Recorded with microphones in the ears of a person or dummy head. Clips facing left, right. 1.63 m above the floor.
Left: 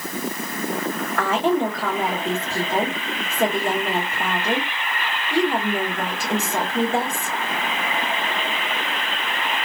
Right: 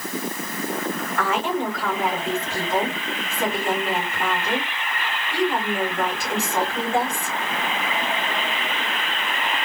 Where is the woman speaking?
65° left (ahead or behind), 2.0 m.